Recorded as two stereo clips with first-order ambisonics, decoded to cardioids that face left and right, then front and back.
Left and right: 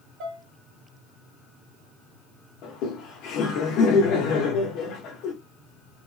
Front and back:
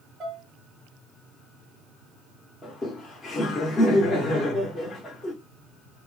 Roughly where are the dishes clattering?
Behind right.